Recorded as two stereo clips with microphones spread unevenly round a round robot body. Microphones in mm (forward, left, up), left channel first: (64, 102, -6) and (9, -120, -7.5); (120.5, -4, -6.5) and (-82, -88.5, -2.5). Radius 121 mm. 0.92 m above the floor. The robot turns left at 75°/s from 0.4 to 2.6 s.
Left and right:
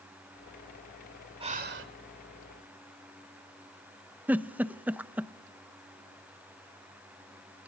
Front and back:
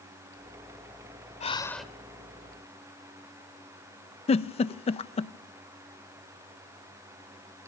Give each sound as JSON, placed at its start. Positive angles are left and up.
{"t": 1.4, "sound": "breathing", "azimuth_deg": -35, "distance_m": 2.0}
{"t": 4.3, "sound": "a giggle", "azimuth_deg": -25, "distance_m": 0.6}